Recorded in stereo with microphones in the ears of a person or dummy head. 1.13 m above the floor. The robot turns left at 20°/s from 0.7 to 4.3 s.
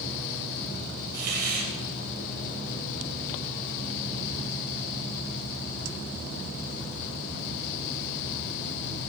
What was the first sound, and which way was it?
A hiss, 60° right (ahead or behind).